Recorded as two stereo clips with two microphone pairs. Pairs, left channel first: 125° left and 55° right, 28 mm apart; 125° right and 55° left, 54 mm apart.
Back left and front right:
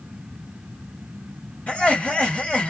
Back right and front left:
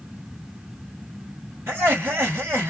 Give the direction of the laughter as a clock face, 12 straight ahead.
9 o'clock.